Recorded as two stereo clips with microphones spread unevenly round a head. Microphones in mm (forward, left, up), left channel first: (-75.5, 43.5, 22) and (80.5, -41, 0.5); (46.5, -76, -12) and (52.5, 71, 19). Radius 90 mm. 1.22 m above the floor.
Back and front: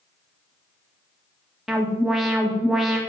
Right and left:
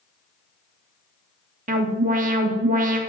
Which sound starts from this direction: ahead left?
An alarm, at 1.7 s.